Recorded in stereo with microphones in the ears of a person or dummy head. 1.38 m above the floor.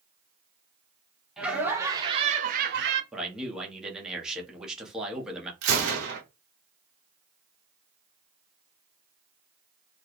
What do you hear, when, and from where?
1.4 s laughter: 5° right (ahead or behind), 1.3 m; by 3.0 s 70° right (ahead or behind), 1.0 m
3.1 s a man speaking: 5° right (ahead or behind), 1.1 m
5.6 s a gunshot: 65° right (ahead or behind), 1.4 m